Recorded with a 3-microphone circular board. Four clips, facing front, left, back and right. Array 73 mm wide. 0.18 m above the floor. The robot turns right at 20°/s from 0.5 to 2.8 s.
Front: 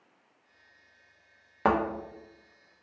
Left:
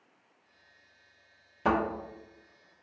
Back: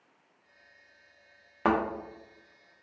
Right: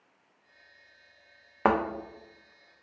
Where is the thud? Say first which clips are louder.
Right 3 dB, front 1 dB; 80° right, 0.7 m; by 1.8 s 75° right, 0.7 m.